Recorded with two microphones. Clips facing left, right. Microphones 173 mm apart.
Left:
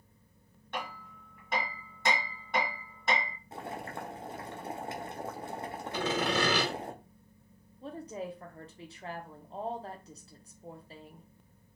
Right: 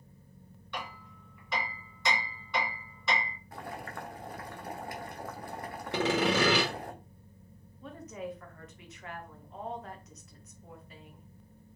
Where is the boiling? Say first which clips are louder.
Left 2 dB; 25° left (ahead or behind), 0.5 m.